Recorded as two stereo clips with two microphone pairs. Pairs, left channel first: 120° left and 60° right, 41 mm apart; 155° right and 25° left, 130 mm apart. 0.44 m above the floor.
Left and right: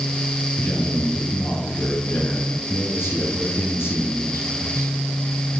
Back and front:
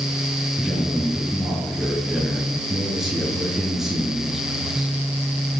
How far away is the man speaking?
About 8 m.